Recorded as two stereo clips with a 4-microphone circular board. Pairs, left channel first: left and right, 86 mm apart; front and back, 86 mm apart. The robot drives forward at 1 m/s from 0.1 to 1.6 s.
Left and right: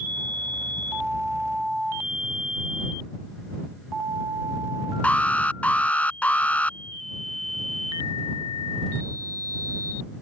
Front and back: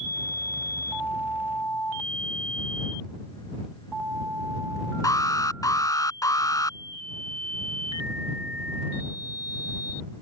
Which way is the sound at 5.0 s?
20° left.